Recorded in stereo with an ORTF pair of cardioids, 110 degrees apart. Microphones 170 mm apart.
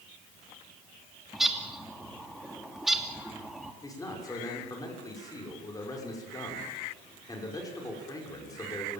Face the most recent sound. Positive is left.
turn(degrees=20)